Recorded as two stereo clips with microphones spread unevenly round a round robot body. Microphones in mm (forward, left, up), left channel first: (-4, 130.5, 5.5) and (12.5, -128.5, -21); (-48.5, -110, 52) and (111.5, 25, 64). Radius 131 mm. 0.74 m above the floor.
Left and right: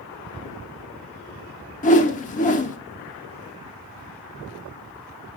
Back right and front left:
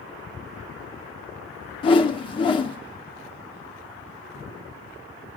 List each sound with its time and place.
1.8 s a whoosh: 155° left, 1.3 m